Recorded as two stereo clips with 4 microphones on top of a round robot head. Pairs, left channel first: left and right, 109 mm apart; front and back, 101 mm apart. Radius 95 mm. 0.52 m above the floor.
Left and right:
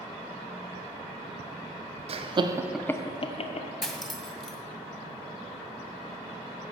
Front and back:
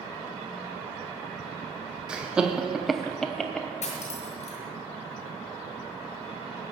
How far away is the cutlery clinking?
About 2 m.